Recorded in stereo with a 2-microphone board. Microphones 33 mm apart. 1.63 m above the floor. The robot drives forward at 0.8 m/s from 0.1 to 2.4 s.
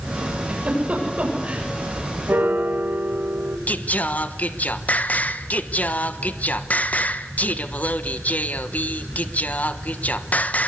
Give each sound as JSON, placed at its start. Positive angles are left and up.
{"t": 0.5, "sound": "a giggle", "side_deg": -40, "distance_m": 7.0}
{"t": 2.3, "sound": "a piano", "side_deg": -85, "distance_m": 2.0}
{"t": 3.7, "sound": "singing", "side_deg": 50, "distance_m": 1.2}